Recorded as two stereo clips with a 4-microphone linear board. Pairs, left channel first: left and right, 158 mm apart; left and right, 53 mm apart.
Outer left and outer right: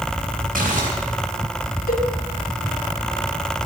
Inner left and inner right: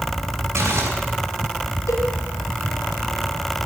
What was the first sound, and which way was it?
Crumpling, 75° right (ahead or behind).